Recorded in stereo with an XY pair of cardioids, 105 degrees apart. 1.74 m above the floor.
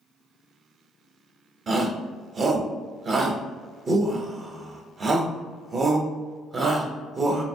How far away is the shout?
About 0.8 m.